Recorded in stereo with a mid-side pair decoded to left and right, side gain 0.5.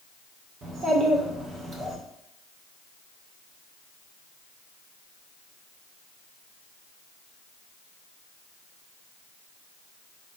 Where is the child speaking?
50° right, 1.5 m.